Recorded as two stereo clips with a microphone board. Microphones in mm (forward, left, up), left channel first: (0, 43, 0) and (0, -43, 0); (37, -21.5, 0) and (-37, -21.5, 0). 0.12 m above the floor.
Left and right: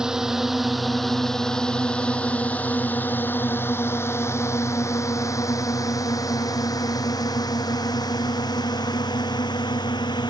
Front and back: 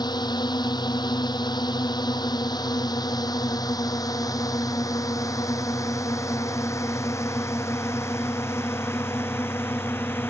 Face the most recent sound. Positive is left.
turn(degrees=60)